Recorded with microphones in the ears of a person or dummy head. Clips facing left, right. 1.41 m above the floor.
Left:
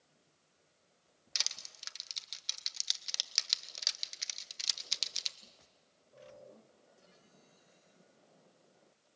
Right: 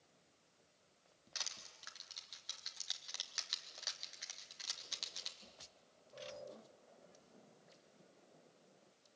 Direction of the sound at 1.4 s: 35° left (ahead or behind).